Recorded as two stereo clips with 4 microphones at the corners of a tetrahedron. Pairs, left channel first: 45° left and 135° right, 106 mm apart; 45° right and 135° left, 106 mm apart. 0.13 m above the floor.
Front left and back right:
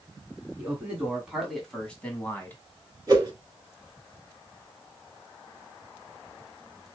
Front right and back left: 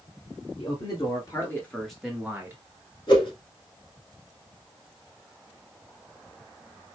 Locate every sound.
0.6 s a man speaking: 60° right, 2 m; by 2.6 s 95° left, 1.7 m
3.1 s a whoosh: 80° right, 3 m